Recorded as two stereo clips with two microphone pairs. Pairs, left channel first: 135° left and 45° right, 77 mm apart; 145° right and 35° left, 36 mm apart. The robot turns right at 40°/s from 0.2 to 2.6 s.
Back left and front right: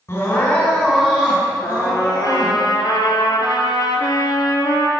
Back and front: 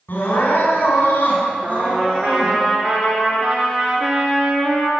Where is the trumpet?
60° left, 3.5 m; by 4.9 s 100° left, 3.5 m.